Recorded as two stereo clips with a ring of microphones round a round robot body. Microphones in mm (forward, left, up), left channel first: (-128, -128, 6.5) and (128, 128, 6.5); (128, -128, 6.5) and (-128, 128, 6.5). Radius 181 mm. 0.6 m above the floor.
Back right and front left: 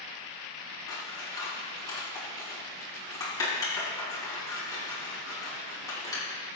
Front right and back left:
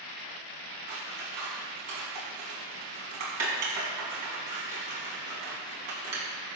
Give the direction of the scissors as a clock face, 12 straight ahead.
7 o'clock.